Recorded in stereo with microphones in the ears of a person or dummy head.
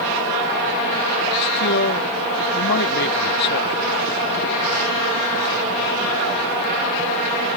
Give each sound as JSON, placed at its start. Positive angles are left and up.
{"t": 1.4, "sound": "a man speaking", "side_deg": 65}